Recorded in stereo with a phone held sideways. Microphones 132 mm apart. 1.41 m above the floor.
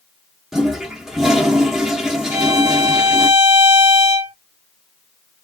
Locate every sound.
0.5 s a toilet flushing: centre (ahead or behind), 1.2 m
2.3 s a violin: 20° right (ahead or behind), 1.5 m